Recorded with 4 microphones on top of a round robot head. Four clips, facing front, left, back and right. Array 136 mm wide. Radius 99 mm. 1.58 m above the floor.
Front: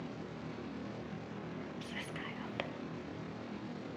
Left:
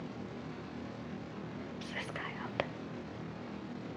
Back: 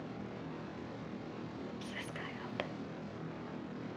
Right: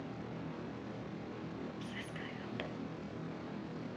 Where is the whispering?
100° left, 1.0 m.